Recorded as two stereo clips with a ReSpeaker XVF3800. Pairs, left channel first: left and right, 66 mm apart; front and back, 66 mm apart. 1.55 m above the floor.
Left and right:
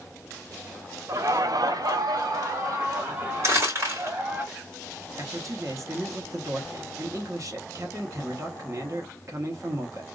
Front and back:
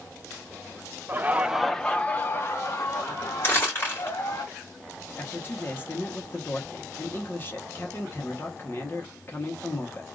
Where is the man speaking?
55° right, 1.0 m.